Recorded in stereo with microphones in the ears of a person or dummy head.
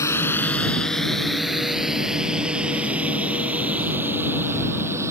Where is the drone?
20° left (ahead or behind); by 5.1 s 10° right (ahead or behind).